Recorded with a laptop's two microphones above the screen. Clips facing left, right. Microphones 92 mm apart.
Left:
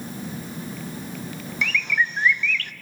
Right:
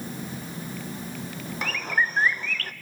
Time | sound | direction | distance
1.6 | a bird | 40° right (ahead or behind) | 0.6 m